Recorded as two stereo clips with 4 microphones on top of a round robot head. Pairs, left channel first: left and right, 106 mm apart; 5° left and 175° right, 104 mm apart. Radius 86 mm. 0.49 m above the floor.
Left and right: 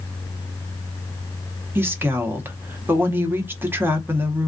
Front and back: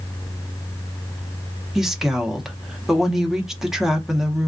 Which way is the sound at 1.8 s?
95° right.